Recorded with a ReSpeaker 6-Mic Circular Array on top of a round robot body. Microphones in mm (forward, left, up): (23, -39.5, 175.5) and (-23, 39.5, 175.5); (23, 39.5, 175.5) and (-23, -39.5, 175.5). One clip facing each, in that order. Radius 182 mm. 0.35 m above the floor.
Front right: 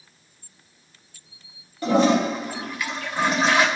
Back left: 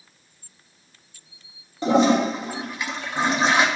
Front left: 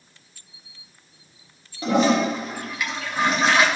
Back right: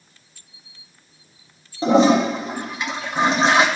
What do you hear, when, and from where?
1.8 s a toilet flushing: 175° right, 1.6 m